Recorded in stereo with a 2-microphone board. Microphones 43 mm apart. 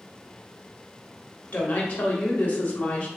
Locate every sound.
1.5 s a woman speaking: 35° left (ahead or behind), 1.0 m